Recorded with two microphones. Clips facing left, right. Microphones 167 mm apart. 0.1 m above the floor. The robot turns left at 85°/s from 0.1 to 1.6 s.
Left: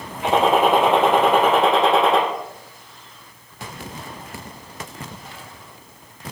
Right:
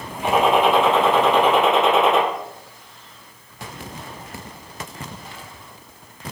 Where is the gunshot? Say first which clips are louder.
Even; 160° left, 3.5 m; by 2.2 s 40° left, 3.5 m.